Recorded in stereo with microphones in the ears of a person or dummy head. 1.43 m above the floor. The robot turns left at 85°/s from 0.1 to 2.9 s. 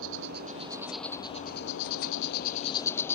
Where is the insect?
110° right; by 3.2 s 10° left.